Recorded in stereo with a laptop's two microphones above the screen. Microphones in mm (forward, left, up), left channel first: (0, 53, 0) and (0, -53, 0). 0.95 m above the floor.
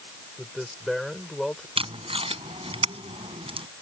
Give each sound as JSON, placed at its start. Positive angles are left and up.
{"t": 0.4, "sound": "a man speaking", "side_deg": 0}
{"t": 1.8, "sound": "tape being pulled", "side_deg": -60}